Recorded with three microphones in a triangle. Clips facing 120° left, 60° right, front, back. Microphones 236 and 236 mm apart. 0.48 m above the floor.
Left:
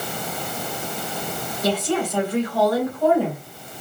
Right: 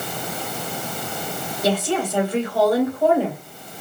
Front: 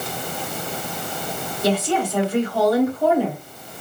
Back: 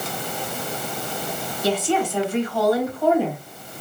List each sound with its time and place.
1.6 s a woman speaking: straight ahead, 2.0 m